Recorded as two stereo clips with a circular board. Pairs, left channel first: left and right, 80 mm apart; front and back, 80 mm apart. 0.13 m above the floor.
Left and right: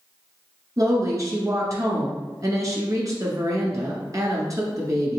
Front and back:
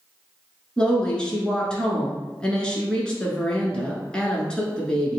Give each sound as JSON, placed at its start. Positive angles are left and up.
{"t": 0.8, "sound": "a woman speaking", "azimuth_deg": -75, "distance_m": 1.5}